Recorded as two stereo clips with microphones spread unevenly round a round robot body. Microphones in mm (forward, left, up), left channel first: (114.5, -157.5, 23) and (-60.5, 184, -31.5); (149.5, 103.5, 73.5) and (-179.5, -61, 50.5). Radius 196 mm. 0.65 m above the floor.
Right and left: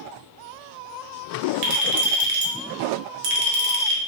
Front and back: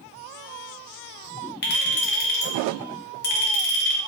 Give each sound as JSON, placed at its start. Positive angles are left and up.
{"t": 1.6, "sound": "a clink", "azimuth_deg": 90, "distance_m": 0.9}